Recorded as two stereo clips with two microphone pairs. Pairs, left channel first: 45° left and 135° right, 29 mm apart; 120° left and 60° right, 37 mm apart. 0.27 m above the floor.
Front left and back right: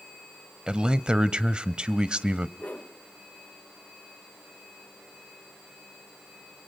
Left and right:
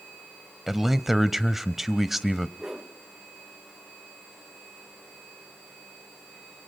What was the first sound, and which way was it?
A man speaking, 140° right.